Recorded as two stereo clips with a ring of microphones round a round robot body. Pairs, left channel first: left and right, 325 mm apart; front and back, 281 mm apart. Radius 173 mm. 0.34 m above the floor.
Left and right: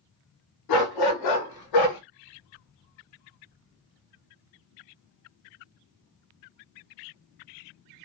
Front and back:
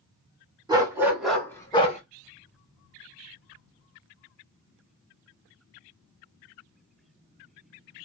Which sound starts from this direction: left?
A dog barking, at 0.7 s.